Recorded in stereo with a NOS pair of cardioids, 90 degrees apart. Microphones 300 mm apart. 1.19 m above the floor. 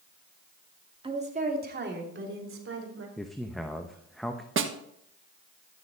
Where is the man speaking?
Straight ahead, 1.0 m.